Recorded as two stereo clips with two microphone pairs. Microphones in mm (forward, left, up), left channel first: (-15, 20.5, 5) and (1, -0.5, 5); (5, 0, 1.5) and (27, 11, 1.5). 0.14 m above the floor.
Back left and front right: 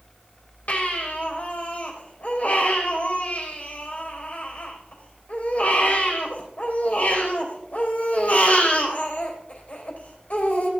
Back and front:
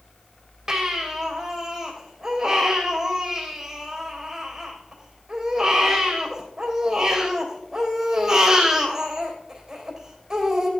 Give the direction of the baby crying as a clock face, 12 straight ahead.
9 o'clock.